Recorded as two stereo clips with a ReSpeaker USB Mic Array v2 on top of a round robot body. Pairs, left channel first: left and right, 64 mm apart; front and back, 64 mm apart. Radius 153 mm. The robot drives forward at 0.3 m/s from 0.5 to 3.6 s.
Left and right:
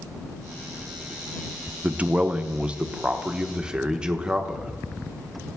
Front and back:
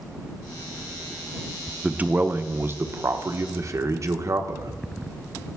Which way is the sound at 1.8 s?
135° right.